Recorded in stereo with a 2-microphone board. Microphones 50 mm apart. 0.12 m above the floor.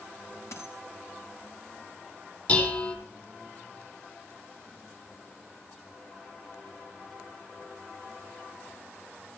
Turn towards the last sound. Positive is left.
turn(degrees=30)  # may be behind; listen again after turning